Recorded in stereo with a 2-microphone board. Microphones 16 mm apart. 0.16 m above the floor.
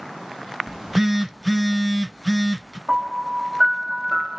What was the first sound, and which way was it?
A phone buzzing, 15° right (ahead or behind).